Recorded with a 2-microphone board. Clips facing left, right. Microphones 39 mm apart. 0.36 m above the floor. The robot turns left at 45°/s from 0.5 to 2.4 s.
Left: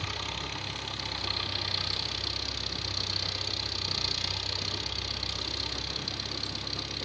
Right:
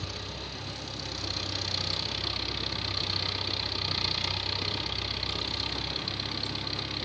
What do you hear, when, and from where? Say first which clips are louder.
0.0 s an engine running: left 4 dB; 70° left, 3 m; by 7.1 s 15° right, 3 m